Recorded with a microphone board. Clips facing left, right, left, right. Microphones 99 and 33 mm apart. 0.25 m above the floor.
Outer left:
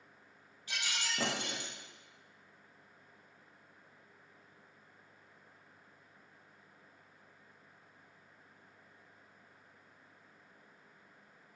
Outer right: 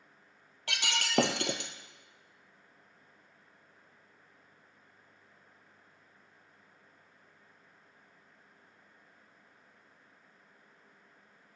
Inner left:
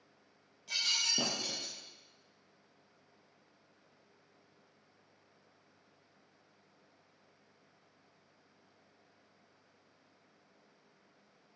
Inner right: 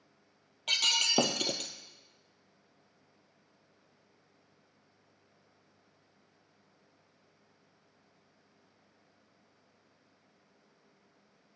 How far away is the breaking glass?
About 1.4 m.